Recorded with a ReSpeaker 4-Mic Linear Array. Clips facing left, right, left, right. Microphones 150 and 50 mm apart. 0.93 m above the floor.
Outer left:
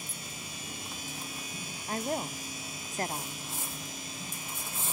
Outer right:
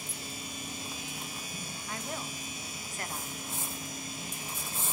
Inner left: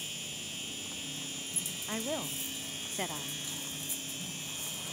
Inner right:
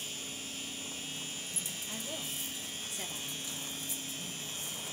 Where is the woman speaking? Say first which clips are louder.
Outer left 8 dB, inner left 8 dB; 35° left (ahead or behind), 0.5 m.